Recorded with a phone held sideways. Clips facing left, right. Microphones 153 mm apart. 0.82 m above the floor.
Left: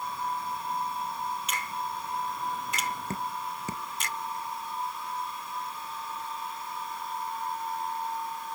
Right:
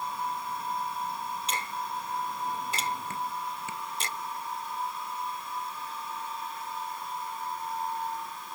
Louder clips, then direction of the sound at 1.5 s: Even; 30° right (ahead or behind).